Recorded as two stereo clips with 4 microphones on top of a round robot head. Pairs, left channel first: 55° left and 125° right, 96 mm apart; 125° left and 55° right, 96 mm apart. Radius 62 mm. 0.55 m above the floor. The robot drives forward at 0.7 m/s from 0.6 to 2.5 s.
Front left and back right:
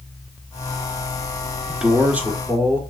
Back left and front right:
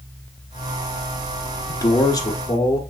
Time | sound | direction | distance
1.7 | a man speaking | 150° left | 0.9 m